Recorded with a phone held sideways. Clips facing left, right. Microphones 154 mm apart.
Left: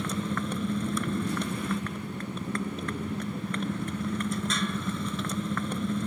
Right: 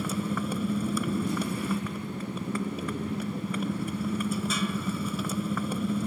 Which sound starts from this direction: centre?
A motorcycle, at 0.0 s.